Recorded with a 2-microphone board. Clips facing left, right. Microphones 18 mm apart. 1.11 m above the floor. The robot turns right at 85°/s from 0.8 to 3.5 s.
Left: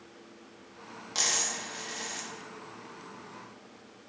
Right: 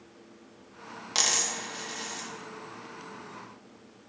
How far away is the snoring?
No snoring in this recording.